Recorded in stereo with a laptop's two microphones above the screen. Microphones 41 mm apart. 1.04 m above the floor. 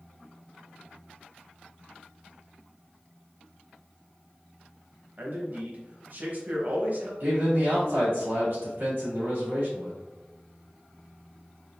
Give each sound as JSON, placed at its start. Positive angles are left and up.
{"t": 5.2, "sound": "a man speaking", "side_deg": -45, "distance_m": 1.0}
{"t": 7.2, "sound": "a man speaking", "side_deg": -50, "distance_m": 1.6}